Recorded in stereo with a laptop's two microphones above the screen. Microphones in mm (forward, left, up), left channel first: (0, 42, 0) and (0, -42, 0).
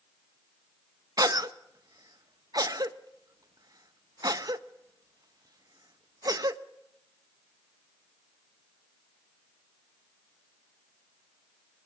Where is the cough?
50° right (ahead or behind), 0.9 m.